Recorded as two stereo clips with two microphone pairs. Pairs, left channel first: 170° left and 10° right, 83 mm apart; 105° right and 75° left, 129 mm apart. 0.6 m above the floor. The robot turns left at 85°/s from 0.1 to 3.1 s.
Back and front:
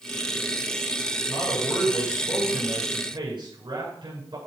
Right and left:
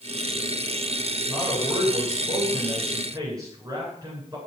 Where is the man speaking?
170° left, 9 m; by 4.4 s 15° left, 9 m.